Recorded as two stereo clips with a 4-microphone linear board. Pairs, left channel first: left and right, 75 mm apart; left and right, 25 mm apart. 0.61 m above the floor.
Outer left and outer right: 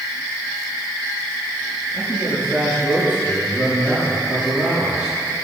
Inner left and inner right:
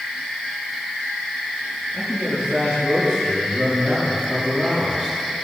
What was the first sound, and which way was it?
A man speaking, 25° right (ahead or behind).